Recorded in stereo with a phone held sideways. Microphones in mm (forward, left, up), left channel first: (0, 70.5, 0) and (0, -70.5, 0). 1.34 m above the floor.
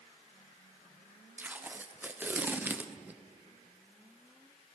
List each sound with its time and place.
1.4 s tape being pulled: 15° right (ahead or behind), 0.6 m